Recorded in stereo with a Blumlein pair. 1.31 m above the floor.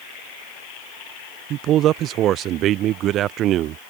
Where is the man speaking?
30° right.